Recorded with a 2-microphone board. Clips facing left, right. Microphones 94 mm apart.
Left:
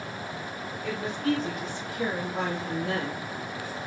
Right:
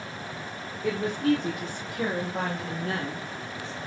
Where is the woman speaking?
65° right (ahead or behind), 1.2 m; by 3.3 s 50° right (ahead or behind), 2.5 m.